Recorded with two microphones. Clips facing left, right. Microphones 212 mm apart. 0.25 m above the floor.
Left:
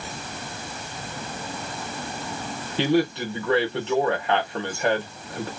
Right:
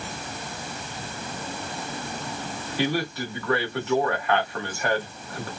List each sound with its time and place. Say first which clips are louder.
2.8 s a man speaking: left 5 dB; 25° left (ahead or behind), 1.2 m